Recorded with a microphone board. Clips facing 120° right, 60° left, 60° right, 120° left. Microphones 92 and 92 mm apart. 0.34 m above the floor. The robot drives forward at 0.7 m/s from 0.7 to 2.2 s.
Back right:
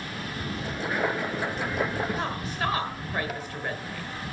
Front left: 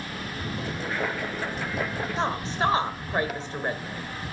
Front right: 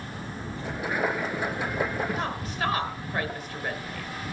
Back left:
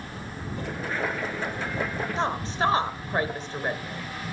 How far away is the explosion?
About 7 m.